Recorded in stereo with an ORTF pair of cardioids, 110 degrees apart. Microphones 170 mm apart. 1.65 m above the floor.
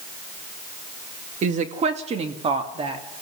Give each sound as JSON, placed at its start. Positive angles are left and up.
{"t": 1.4, "sound": "a woman speaking", "azimuth_deg": -45, "distance_m": 1.9}